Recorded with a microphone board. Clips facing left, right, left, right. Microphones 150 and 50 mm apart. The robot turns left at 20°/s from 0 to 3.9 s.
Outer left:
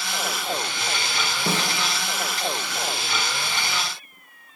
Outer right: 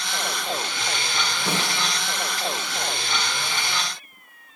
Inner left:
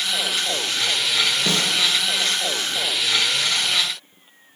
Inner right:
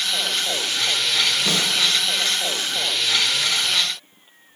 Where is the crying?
No crying in this recording.